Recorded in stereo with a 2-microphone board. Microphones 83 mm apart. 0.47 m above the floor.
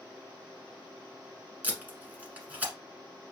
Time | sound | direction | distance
1.6 | tape being pulled | 20° right (ahead or behind) | 1.2 m